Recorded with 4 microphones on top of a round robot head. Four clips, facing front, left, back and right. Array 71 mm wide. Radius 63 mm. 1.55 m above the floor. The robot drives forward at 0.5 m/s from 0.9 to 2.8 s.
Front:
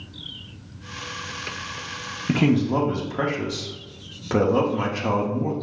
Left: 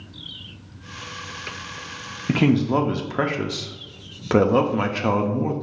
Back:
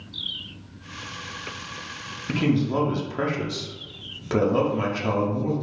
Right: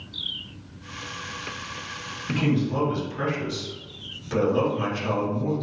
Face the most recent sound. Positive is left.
turn(degrees=90)